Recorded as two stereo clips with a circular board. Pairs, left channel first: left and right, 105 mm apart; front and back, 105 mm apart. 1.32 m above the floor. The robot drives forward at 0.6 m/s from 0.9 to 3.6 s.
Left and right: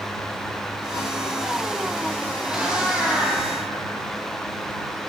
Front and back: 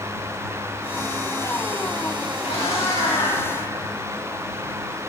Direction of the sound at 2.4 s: 10° right.